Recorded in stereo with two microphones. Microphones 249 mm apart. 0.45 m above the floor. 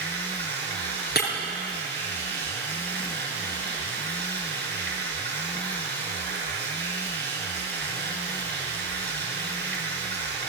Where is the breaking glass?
45° left (ahead or behind), 4.5 m.